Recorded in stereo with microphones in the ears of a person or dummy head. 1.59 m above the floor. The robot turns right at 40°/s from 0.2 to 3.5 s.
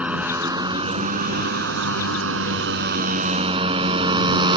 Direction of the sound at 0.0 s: 5° right (ahead or behind).